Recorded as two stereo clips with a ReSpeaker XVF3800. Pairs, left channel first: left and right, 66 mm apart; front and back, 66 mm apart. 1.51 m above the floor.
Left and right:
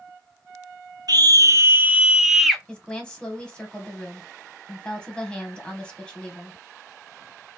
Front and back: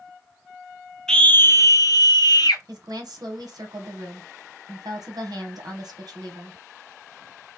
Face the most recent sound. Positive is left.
turn(degrees=165)